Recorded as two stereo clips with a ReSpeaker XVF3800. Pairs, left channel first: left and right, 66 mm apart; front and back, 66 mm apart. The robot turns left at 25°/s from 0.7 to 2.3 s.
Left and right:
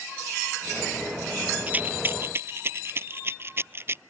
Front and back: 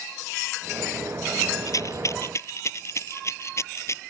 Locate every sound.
1.7 s a rattle: 25° right; by 4.0 s 40° right